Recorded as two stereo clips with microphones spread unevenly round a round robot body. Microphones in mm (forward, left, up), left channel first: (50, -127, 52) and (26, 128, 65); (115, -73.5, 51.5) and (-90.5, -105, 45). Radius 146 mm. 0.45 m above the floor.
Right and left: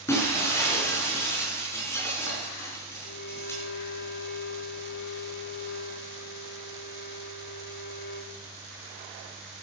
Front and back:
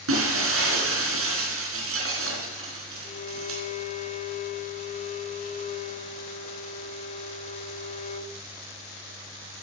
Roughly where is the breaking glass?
Behind.